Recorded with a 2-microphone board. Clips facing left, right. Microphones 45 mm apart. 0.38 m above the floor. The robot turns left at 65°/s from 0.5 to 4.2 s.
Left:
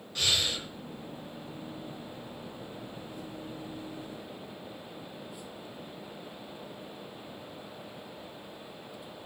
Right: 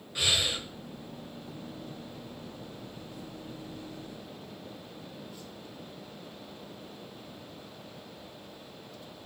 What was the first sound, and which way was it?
Breathing, 15° right (ahead or behind).